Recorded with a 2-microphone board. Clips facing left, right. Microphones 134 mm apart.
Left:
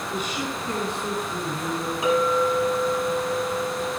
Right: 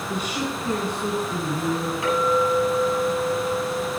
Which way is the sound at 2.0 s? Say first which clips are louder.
Left 1 dB; 20° left (ahead or behind).